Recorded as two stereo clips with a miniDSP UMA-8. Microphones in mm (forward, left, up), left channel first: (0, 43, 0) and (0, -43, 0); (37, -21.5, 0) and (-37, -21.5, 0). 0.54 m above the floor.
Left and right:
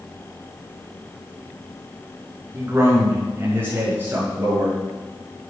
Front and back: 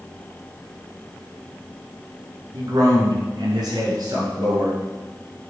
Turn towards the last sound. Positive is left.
turn(degrees=-160)